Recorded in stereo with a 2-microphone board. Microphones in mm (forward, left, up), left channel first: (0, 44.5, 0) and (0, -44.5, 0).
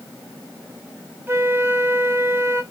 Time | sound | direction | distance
1.3 | a flute | 25° right (ahead or behind) | 0.7 m